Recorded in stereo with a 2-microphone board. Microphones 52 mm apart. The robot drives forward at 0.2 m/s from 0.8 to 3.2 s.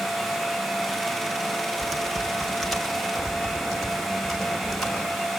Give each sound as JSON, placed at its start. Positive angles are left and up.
{"t": 1.8, "sound": "typing on a keyboard", "side_deg": 5, "distance_m": 1.8}